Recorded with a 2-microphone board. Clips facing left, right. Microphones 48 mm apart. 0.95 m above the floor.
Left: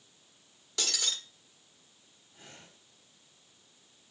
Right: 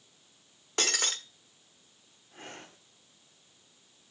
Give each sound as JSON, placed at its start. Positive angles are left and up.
{"t": 0.8, "sound": "breaking glass", "side_deg": -45, "distance_m": 1.4}
{"t": 2.3, "sound": "breathing", "side_deg": -55, "distance_m": 2.0}